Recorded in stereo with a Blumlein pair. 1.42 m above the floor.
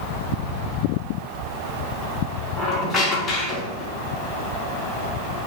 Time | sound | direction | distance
2.6 | a squeak | 20° left | 0.9 m